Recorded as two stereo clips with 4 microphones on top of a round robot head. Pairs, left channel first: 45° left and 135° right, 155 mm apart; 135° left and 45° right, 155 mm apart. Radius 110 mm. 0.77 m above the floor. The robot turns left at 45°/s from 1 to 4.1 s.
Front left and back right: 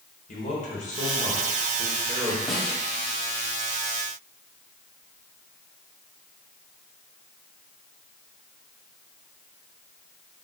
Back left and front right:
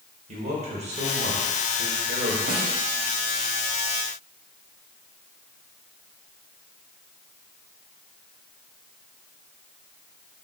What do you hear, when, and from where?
0.3 s a man speaking: 5° left, 4 m; by 2.4 s 60° right, 4 m
2.5 s a snare drum: 45° right, 2.5 m; by 2.8 s 60° right, 2.5 m